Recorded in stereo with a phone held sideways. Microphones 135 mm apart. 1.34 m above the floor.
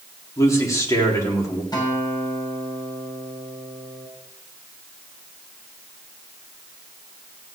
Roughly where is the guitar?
Left.